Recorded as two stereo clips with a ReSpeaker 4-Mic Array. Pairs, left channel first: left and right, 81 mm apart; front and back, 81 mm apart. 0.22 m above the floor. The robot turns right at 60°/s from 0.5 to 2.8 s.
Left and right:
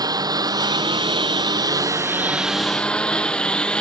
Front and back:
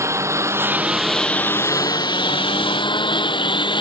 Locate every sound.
0.0 s a lawn mower: 125° right; by 3.8 s 15° left